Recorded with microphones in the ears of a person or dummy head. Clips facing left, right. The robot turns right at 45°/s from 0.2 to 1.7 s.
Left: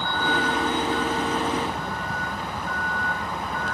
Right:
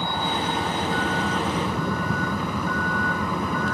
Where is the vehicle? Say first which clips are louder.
Left 1 dB; 10° right (ahead or behind); by 3.7 s 75° right (ahead or behind).